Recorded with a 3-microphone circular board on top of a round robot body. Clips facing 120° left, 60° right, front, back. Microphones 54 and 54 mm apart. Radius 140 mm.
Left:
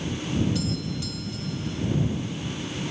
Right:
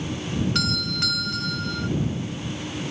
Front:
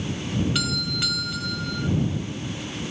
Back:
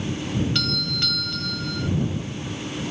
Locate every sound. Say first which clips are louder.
0.6 s a doorbell: right 2 dB, even; 85° right